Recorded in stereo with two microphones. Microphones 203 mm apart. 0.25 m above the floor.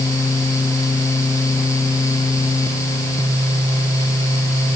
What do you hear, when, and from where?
Only background noise.